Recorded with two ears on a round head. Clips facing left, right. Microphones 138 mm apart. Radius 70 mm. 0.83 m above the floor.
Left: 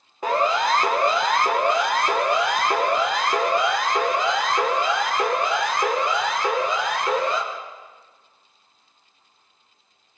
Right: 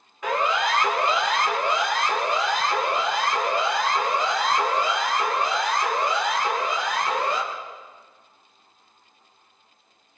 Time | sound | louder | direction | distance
0.2 | a siren | left 3 dB | 30° left (ahead or behind) | 2.5 m